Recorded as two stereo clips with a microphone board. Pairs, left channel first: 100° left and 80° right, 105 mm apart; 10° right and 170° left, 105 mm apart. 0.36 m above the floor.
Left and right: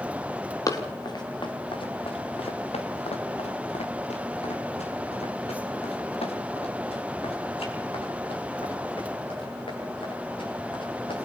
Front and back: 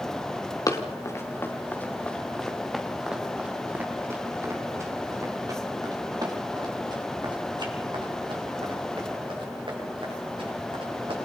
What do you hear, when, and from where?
0.7 s running footsteps: 45° left, 3 m; by 11.2 s 135° left, 9.5 m